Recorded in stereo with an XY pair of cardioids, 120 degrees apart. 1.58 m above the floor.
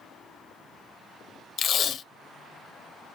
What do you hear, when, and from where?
1.6 s tape being pulled: 50° left, 0.7 m